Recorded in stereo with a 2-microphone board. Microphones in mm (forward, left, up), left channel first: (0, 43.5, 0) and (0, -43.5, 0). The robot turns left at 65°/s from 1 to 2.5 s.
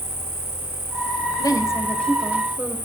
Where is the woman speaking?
55° left, 2.5 m; by 2.8 s 20° right, 2.5 m.